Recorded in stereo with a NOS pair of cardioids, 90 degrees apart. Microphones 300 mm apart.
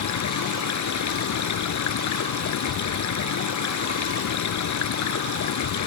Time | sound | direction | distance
0.0 | running water | 65° left | ?